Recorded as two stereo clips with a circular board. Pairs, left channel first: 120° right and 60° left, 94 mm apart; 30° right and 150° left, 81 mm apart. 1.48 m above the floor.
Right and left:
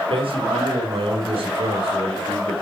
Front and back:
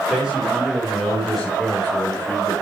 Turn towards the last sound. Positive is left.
turn(degrees=45)